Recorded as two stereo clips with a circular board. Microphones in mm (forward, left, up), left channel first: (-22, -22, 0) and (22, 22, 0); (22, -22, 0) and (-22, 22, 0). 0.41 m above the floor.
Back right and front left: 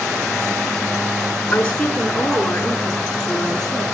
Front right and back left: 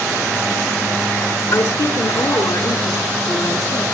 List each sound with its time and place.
1.5 s a woman speaking: 65° right, 4 m; by 3.8 s 55° right, 6 m